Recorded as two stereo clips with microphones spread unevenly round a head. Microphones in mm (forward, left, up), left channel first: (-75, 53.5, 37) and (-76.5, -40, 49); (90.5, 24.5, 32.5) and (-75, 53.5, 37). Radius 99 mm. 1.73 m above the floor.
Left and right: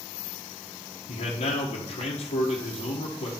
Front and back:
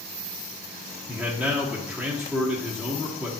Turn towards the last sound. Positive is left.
turn(degrees=85)